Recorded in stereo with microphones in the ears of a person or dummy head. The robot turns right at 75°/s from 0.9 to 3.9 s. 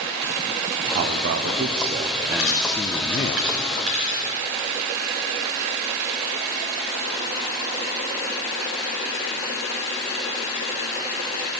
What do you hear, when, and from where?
0.9 s a man speaking: 125° right, 0.6 m; by 3.4 s 60° left, 0.6 m
2.4 s a dropped coin: 55° left (ahead or behind), 3.5 m; by 4.3 s 40° right (ahead or behind), 3.5 m